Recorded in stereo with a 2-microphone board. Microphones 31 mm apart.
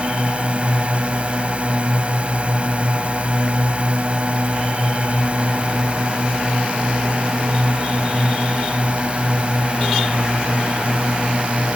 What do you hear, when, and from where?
0.0 s a drone: 40° right (ahead or behind)